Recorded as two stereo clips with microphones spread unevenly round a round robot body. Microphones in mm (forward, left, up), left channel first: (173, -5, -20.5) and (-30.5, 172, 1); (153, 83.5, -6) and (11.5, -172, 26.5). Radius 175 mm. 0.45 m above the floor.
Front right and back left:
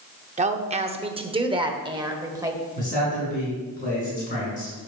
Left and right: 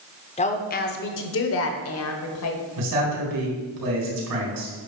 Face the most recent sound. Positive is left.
turn(degrees=-110)